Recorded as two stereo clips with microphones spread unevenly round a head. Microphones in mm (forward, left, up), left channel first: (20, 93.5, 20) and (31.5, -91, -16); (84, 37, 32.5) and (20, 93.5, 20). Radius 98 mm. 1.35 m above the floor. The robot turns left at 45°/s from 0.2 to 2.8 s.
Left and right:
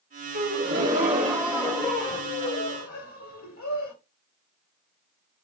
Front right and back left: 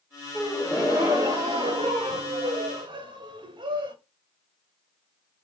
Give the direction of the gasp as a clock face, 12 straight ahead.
4 o'clock.